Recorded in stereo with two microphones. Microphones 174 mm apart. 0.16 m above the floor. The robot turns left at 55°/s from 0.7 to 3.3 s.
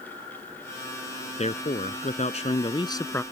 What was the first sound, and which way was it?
A man speaking, 120° left.